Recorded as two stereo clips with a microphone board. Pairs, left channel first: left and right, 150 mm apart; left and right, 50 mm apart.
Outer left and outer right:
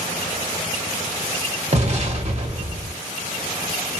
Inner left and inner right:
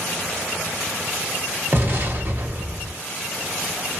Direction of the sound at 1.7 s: 45° right (ahead or behind).